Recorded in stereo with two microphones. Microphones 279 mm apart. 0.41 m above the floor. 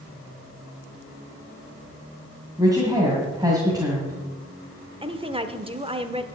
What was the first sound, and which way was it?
A woman speaking, 15° right (ahead or behind).